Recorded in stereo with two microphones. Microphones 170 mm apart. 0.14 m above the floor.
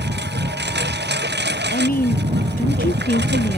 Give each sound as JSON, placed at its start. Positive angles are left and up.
{"t": 0.0, "sound": "a lawn mower", "side_deg": -85}
{"t": 1.7, "sound": "a woman speaking", "side_deg": 60}